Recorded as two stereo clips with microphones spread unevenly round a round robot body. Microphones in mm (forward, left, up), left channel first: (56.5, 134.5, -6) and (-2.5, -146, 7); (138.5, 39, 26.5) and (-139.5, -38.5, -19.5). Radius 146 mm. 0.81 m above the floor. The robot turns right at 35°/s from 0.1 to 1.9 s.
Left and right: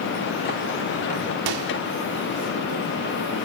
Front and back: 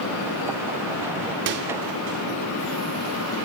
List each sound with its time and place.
1.5 s a microwave: 115° right, 1.5 m; by 1.7 s 105° right, 1.5 m